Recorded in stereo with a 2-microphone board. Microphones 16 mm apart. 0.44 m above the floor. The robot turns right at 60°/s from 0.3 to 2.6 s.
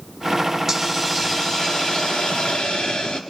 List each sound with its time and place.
0.7 s a hiss: 10° right, 2.5 m; by 3.2 s 105° left, 2.5 m